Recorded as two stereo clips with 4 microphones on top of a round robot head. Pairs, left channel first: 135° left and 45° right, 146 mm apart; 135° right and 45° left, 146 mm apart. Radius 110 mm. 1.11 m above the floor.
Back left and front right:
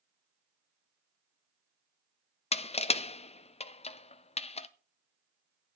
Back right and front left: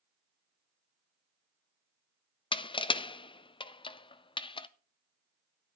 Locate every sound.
2.5 s crushing: 175° left, 0.6 m